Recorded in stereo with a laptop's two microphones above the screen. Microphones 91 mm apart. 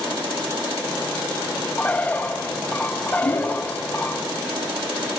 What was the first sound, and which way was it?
A bird, 15° left (ahead or behind).